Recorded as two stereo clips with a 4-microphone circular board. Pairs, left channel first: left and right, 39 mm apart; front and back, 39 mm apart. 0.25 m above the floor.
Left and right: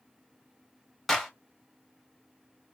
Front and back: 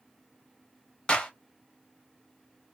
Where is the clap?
15° left, 0.8 m.